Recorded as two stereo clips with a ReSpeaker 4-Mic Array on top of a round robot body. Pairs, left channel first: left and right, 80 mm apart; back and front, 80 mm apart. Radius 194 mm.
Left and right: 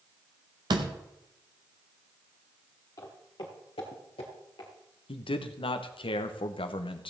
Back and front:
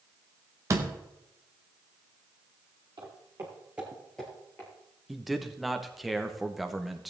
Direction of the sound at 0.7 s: 55° right.